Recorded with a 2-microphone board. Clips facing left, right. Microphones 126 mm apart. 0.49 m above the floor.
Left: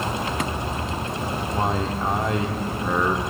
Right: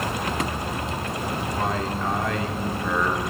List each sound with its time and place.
1.5 s a man speaking: 25° left (ahead or behind), 1.1 m